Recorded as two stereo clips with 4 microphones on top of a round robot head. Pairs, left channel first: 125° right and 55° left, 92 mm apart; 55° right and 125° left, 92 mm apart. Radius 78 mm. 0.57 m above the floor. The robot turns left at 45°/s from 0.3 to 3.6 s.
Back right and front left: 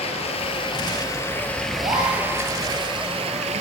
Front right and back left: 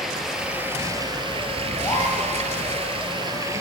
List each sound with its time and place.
0.0 s running water: 145° right, 2.5 m; by 3.6 s 65° left, 2.5 m
1.8 s a gasp: 10° left, 8 m; by 2.2 s 10° right, 8 m